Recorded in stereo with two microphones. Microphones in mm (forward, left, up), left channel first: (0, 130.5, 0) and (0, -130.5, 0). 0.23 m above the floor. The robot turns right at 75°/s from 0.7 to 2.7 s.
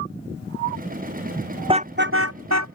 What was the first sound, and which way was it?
A car horn, 20° right (ahead or behind).